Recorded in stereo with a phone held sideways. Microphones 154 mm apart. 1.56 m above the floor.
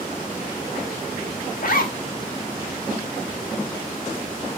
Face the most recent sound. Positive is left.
turn(degrees=65)  # may be behind; listen again after turning